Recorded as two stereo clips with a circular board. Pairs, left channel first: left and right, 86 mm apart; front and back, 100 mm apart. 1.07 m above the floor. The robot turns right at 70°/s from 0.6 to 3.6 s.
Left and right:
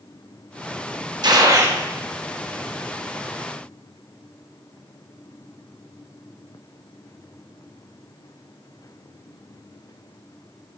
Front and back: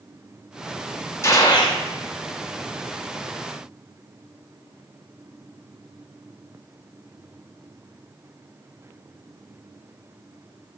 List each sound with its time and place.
1.2 s a gunshot: 60° right, 0.8 m; by 1.8 s 20° right, 0.8 m